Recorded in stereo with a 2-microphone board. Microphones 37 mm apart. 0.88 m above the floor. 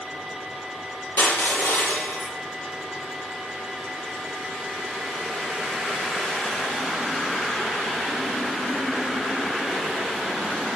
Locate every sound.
1.2 s crushing: 85° left, 9.5 m